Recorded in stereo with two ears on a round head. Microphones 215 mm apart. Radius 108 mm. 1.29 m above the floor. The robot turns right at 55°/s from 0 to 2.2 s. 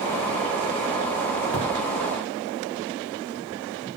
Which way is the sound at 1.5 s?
60° right (ahead or behind).